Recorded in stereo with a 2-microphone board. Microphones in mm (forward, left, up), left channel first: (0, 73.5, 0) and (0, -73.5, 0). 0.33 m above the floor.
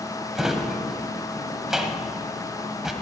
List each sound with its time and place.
0.3 s a drawer: 5° right (ahead or behind), 1.1 m